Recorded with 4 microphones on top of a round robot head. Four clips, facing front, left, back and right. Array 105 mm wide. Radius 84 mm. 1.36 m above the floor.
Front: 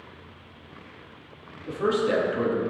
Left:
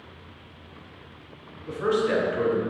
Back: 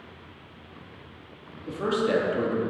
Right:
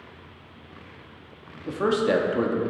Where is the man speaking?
90° right, 2 m.